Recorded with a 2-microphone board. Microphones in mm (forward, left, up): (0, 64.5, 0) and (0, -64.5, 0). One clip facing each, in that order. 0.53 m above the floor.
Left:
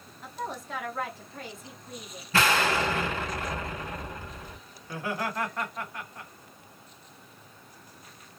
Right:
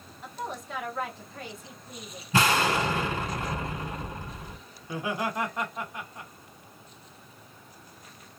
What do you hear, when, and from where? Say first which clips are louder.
0.2 s a woman speaking: even; centre (ahead or behind), 1.2 m
2.3 s an explosion: right 1 dB; 20° right (ahead or behind), 2 m
4.8 s laughter: right 2 dB; 15° right (ahead or behind), 1.0 m